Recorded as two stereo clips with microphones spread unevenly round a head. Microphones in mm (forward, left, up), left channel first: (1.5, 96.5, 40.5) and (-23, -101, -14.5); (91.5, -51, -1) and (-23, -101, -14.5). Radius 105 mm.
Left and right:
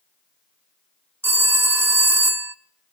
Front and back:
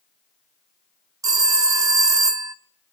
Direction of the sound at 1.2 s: 165° left.